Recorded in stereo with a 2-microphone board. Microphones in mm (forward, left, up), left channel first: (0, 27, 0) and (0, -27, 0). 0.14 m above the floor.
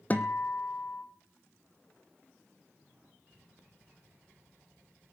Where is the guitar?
30° left (ahead or behind), 1.1 m.